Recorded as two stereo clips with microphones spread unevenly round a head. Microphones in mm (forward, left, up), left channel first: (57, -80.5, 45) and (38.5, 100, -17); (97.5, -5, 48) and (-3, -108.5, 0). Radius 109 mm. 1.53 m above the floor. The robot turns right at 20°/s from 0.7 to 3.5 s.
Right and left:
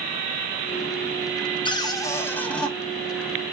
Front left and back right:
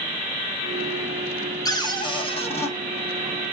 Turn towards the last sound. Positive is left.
turn(degrees=15)